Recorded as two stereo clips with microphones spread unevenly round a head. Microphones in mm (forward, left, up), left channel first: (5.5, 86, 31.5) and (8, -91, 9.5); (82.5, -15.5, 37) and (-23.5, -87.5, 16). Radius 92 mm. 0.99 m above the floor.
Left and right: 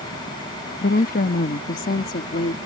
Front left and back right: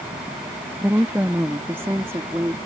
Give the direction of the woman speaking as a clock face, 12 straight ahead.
7 o'clock.